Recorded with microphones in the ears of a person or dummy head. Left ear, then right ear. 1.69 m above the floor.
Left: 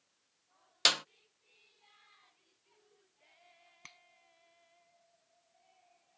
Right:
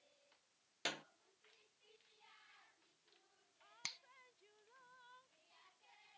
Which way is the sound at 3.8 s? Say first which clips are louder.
Right 8 dB; 35° right (ahead or behind).